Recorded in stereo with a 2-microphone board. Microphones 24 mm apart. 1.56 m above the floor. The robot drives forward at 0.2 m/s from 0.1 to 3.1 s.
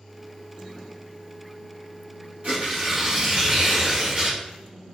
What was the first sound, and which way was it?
Tearing paper, 50° right (ahead or behind).